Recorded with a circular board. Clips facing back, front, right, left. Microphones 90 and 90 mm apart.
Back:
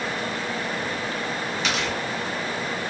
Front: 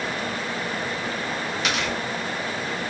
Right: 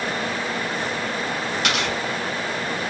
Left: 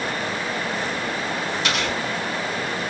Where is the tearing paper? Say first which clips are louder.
Even, right 1 dB; 85° right, 2.5 m.